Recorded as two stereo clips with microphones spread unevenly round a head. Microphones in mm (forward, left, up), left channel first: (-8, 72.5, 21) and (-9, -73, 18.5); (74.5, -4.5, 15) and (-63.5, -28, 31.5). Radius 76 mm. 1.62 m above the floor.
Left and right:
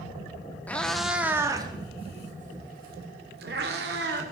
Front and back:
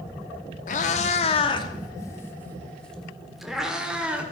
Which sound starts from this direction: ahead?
A cat meowing, at 0.7 s.